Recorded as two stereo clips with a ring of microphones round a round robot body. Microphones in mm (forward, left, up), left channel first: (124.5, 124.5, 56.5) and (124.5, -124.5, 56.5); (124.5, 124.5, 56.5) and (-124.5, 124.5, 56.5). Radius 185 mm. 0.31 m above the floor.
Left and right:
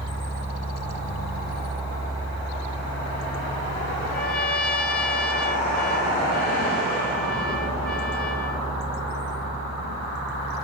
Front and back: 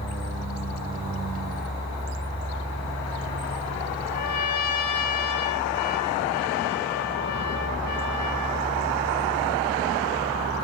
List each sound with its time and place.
4.1 s a trumpet: 5° left, 4 m